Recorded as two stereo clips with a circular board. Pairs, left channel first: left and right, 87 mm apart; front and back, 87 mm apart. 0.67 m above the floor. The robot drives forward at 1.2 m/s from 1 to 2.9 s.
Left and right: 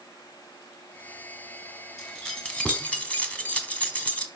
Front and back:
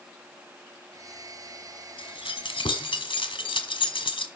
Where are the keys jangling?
10° left, 2.5 m; by 4.3 s 15° left, 1.3 m.